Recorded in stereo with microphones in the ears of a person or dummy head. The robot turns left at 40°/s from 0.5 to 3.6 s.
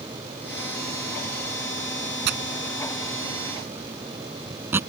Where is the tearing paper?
65° right (ahead or behind); by 4.8 s 10° right (ahead or behind).